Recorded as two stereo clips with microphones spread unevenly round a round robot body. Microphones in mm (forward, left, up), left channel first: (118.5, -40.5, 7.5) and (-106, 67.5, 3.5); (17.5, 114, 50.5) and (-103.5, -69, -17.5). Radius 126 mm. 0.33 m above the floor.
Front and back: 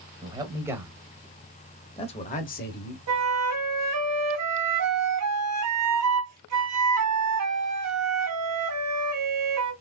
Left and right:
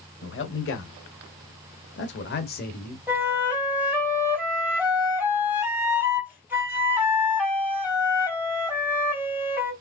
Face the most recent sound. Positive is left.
turn(degrees=160)